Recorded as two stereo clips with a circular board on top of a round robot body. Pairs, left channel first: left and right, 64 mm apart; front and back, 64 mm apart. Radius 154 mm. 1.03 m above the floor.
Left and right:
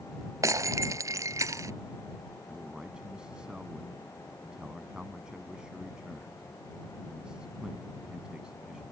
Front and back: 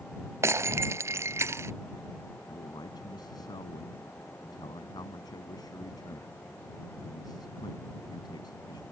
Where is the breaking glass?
130° right.